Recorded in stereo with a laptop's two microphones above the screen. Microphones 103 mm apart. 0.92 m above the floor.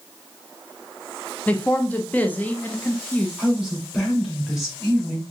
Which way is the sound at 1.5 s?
15° left (ahead or behind).